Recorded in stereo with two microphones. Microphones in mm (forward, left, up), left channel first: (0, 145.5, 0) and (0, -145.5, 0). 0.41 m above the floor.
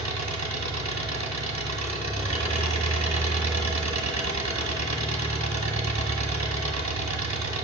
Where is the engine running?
70° right (ahead or behind), 1.5 m.